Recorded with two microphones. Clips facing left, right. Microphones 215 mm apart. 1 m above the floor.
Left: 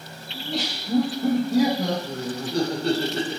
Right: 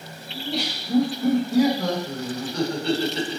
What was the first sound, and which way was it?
Laughter, centre (ahead or behind).